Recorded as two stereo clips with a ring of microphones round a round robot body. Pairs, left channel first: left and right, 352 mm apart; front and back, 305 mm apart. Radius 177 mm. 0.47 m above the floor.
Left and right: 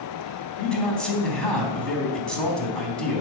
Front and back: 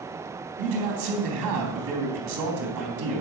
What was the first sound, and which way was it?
A man speaking, straight behind.